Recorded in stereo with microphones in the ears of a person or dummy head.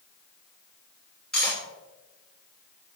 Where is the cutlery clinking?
5° left (ahead or behind), 1.6 m.